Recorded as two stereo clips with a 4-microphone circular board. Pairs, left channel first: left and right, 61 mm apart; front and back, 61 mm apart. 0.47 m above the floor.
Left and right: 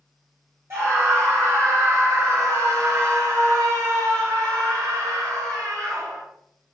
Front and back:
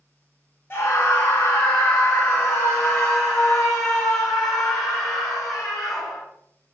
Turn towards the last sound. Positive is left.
turn(degrees=-85)